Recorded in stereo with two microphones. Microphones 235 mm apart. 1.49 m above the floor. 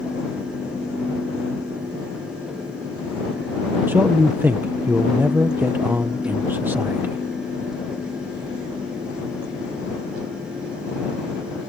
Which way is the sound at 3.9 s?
10° right (ahead or behind).